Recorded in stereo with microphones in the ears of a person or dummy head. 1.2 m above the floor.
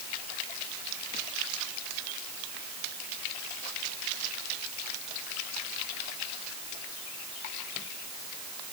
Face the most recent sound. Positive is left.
No sound to turn to.